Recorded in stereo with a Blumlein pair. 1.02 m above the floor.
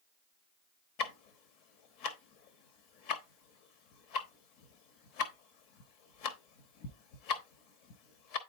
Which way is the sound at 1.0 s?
45° left.